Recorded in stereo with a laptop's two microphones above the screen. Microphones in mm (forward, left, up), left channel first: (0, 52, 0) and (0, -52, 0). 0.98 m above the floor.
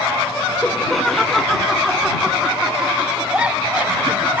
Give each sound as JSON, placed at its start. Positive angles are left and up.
{"t": 0.6, "sound": "laughter", "side_deg": 5}